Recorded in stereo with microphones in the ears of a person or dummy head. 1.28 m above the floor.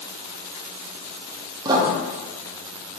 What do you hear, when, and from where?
1.6 s writing: 25° right (ahead or behind), 0.5 m